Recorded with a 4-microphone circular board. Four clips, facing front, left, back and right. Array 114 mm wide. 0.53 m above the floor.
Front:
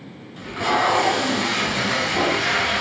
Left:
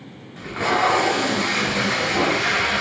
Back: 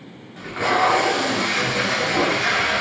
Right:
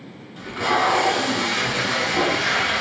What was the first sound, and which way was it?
Tape being pulled, 140° left.